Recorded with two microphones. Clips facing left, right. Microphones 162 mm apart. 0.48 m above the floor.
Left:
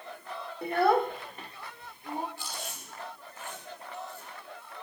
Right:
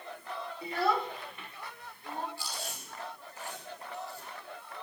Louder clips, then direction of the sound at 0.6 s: Left 6 dB; 60° left (ahead or behind).